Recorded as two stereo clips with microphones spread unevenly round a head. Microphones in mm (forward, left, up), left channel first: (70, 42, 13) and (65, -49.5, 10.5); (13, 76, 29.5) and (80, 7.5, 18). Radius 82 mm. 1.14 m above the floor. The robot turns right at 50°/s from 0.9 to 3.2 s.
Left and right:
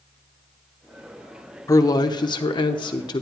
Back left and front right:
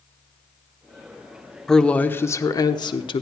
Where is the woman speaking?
45° left, 0.8 m; by 3.2 s 120° left, 0.8 m.